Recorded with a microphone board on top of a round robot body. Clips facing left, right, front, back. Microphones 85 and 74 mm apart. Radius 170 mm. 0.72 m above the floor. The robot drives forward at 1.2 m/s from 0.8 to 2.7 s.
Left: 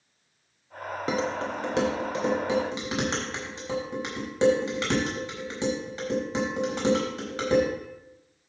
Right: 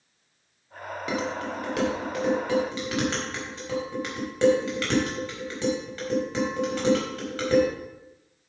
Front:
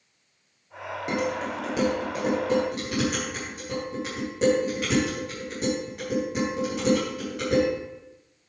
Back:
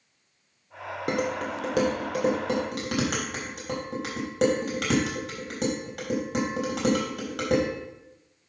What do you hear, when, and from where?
1.1 s dishes clattering: 145° left, 2 m; by 7.7 s 160° left, 4 m